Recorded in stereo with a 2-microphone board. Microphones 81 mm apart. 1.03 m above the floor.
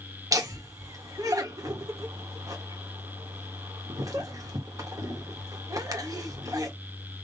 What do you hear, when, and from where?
0.3 s laughter: 45° right (ahead or behind), 1.6 m